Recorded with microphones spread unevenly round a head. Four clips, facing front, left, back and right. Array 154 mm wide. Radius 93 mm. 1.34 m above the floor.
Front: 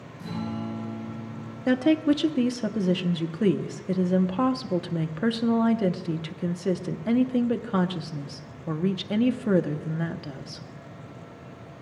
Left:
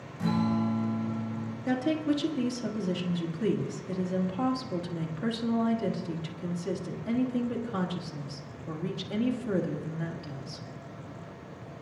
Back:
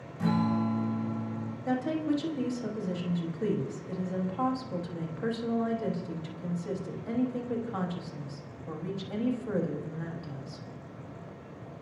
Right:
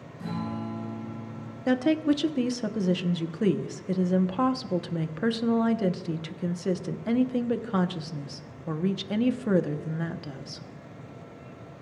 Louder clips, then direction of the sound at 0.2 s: Left 6 dB, back 5 dB; 150° left.